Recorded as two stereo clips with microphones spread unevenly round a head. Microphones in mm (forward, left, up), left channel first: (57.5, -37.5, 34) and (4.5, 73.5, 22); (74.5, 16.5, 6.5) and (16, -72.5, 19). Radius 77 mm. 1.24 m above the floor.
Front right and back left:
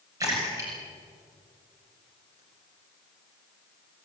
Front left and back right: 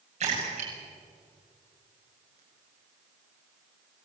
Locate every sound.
0.2 s a splash: 175° right, 7 m